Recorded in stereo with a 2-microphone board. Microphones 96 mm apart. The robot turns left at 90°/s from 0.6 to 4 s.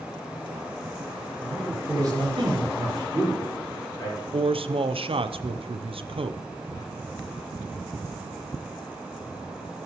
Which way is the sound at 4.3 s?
70° right (ahead or behind).